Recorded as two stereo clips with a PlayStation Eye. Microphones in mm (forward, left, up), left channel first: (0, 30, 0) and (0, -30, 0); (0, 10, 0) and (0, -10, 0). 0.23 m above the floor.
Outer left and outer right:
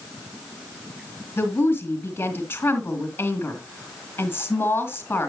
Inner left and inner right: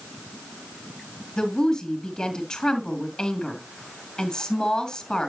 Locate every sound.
1.4 s a woman speaking: 35° left (ahead or behind), 2.5 m